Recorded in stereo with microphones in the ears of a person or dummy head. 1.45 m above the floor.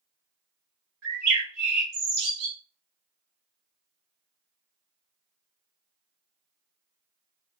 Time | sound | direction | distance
1.0 | a bird | 50° right (ahead or behind) | 1.7 m